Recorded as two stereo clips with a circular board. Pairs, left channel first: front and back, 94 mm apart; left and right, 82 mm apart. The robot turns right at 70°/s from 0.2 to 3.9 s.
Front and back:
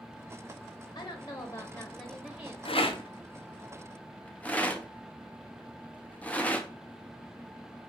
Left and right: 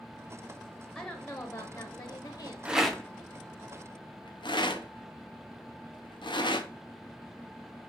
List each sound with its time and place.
0.9 s a woman speaking: 5° right, 0.6 m; by 2.5 s 105° left, 0.6 m
2.6 s a rattle: 15° right, 0.5 m; by 6.7 s 75° left, 0.5 m